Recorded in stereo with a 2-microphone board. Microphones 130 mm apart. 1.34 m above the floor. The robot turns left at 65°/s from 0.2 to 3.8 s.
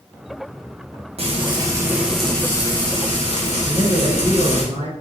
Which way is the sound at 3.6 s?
35° right (ahead or behind).